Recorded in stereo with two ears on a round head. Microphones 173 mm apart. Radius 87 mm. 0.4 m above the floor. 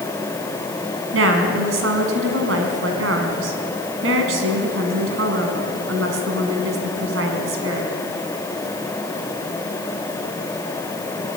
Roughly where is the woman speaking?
Right.